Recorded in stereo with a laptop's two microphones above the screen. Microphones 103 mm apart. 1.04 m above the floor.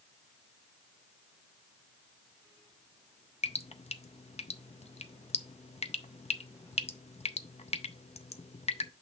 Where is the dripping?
80° left, 0.5 m.